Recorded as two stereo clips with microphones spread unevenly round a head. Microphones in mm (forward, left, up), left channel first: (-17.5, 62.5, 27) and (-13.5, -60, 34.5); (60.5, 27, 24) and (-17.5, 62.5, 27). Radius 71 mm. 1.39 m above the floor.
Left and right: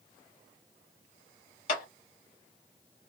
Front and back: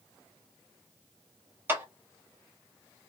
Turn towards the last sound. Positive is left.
turn(degrees=95)